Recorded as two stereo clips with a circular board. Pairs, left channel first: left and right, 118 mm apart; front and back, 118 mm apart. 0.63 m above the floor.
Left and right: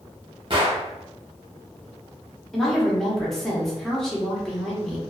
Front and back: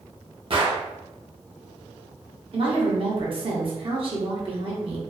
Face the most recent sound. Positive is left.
turn(degrees=175)